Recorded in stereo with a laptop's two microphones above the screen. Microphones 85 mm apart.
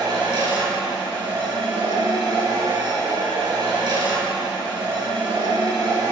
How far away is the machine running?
About 2.5 m.